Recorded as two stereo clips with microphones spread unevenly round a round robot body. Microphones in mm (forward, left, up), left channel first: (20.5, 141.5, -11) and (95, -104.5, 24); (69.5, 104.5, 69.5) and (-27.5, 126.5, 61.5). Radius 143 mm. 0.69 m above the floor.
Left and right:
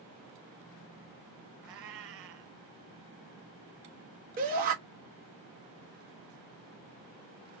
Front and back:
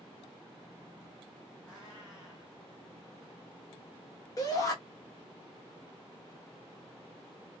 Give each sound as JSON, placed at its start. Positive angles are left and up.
{"t": 1.6, "sound": "a cat meowing", "azimuth_deg": -100, "distance_m": 1.2}
{"t": 4.4, "sound": "a shout", "azimuth_deg": -35, "distance_m": 1.3}